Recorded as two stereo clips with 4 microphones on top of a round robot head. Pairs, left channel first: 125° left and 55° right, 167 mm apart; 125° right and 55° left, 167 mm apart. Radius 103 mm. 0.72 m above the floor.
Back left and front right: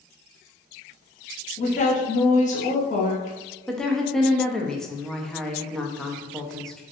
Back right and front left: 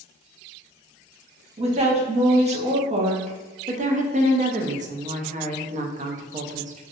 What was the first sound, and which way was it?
A woman speaking, 95° left.